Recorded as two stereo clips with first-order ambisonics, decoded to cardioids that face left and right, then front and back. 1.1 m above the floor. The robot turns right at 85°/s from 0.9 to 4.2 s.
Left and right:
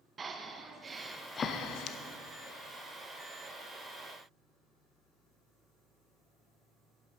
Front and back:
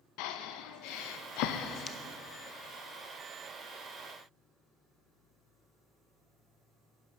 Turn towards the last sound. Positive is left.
turn(degrees=-100)